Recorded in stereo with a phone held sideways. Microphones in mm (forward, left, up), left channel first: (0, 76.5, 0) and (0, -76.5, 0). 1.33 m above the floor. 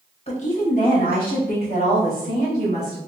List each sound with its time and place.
0.3 s a woman speaking: 40° left (ahead or behind), 1.0 m; by 3.0 s 90° left, 3 m